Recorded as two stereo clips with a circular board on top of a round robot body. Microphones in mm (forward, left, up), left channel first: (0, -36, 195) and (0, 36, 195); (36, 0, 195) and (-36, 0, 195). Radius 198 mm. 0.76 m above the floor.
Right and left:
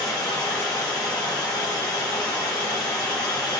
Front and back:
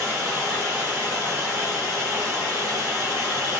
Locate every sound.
0.0 s running water: 105° right, 0.9 m